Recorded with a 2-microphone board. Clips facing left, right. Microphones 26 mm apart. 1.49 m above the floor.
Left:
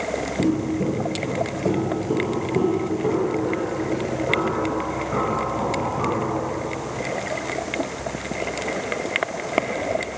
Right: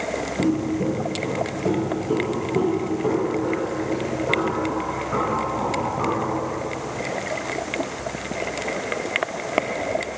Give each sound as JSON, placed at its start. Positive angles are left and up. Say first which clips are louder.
{"t": 0.4, "sound": "footsteps", "louder": "even", "side_deg": 0, "distance_m": 1.5}